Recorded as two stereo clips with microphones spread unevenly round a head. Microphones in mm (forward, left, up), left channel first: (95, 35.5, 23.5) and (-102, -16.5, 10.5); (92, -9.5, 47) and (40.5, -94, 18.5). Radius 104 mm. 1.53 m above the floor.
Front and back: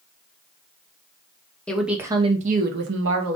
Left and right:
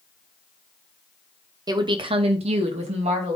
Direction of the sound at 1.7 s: 70° right.